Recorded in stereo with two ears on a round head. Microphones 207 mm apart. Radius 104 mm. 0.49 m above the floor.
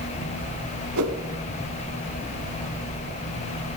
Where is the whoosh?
70° right (ahead or behind), 2.5 m.